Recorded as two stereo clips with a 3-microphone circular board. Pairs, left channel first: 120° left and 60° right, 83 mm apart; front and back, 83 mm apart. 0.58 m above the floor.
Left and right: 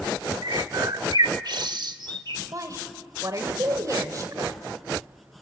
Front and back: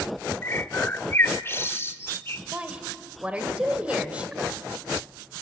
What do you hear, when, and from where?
0.4 s a bird: 55° right, 0.9 m
2.5 s a woman speaking: 105° right, 1.9 m